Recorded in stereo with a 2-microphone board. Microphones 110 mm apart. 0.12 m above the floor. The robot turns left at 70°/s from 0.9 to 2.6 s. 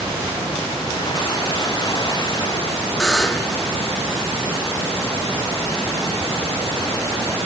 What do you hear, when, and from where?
3.0 s a buzzer: 5° left (ahead or behind), 0.6 m